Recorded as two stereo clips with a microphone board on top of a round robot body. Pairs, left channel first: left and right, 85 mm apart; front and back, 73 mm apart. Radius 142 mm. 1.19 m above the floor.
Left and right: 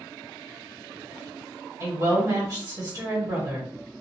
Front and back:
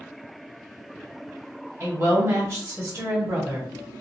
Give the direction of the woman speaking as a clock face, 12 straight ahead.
4 o'clock.